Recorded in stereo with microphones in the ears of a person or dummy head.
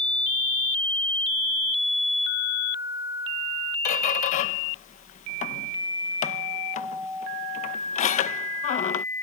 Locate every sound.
3.9 s a squeak: 40° left (ahead or behind)